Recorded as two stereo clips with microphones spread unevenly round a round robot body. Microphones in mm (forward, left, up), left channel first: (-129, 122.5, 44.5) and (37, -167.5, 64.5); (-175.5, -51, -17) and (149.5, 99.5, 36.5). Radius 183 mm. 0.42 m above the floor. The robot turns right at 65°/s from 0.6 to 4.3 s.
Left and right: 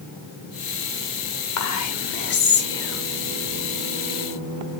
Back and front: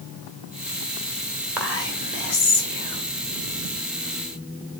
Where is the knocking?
No knocking in this recording.